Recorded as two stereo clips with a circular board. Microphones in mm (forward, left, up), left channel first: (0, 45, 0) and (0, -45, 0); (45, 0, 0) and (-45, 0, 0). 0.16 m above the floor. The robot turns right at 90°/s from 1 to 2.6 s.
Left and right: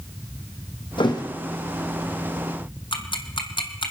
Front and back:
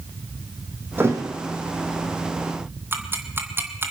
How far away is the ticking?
About 1.2 m.